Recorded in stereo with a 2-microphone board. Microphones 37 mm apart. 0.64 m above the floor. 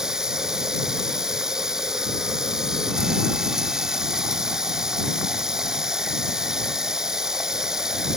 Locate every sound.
0.0 s running water: 20° right (ahead or behind)